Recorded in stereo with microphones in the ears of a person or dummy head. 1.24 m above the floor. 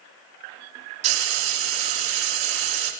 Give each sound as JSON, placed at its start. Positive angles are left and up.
{"t": 1.0, "sound": "frying", "side_deg": -40, "distance_m": 3.0}